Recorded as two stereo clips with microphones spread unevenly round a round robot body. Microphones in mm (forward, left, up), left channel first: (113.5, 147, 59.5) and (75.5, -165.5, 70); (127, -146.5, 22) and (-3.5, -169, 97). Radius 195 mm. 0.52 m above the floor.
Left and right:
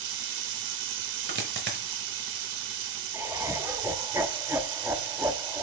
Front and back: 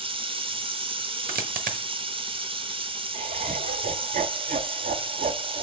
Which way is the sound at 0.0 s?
110° right.